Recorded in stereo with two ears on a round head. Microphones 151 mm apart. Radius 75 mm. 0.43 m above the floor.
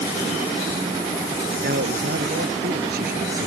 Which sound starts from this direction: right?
A man speaking, at 1.6 s.